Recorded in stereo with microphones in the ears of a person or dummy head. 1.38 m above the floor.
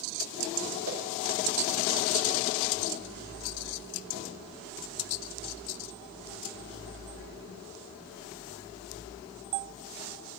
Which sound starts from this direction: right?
A whoosh, at 0.8 s.